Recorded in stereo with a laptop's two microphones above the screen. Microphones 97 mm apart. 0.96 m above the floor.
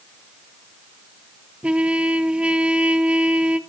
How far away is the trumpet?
About 1.6 m.